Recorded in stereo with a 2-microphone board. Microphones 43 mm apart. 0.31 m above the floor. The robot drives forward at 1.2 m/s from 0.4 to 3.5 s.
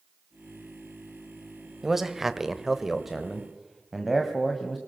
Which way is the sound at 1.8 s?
5° right (ahead or behind).